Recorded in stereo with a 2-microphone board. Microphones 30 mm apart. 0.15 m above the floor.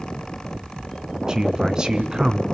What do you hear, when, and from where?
1.3 s a man speaking: 30° right (ahead or behind), 1.5 m